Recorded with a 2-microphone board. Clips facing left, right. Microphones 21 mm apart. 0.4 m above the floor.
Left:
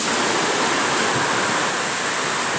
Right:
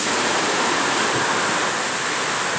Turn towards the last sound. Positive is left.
No sound to turn to.